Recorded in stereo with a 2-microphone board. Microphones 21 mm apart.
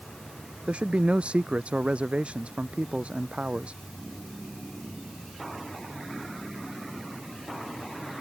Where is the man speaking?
70° right (ahead or behind).